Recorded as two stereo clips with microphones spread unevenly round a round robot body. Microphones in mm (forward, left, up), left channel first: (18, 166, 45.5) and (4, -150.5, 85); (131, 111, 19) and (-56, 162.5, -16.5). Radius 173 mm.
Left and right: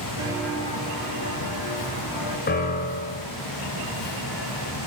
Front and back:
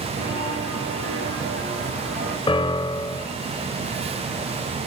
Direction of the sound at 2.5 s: 25° left.